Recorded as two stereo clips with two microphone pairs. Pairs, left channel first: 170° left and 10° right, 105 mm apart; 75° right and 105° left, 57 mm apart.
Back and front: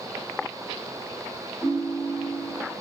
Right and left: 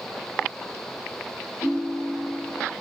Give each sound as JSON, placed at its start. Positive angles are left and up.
{"t": 1.6, "sound": "a ringtone", "azimuth_deg": -70, "distance_m": 1.2}